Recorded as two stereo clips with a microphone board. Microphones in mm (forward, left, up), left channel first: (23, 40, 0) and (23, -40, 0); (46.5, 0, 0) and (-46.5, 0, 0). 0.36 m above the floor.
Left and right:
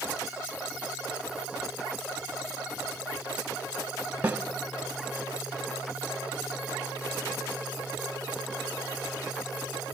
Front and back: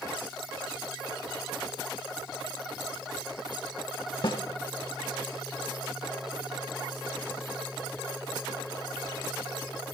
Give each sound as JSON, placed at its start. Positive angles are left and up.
{"t": 4.2, "sound": "a snare drum", "azimuth_deg": -20, "distance_m": 0.9}